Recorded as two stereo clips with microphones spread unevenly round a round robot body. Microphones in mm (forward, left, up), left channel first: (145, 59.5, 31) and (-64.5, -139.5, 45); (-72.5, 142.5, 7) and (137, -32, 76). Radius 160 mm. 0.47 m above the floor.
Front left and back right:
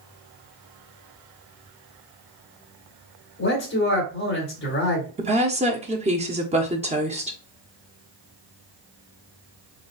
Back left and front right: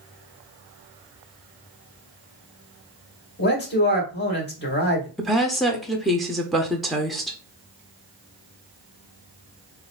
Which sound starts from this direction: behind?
A woman speaking, at 5.2 s.